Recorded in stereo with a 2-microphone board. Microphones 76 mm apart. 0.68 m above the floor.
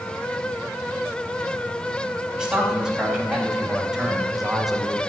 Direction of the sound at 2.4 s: 10° right (ahead or behind).